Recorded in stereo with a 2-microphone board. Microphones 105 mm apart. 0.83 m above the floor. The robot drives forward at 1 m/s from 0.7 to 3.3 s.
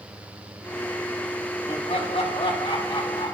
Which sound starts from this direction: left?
Laughter, at 1.7 s.